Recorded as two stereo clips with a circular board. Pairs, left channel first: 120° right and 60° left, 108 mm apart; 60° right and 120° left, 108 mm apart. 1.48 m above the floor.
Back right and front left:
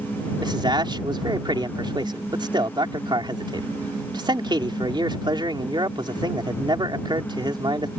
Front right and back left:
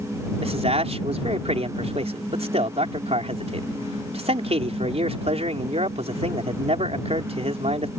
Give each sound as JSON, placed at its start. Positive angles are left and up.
{"t": 0.4, "sound": "a man speaking", "azimuth_deg": 105}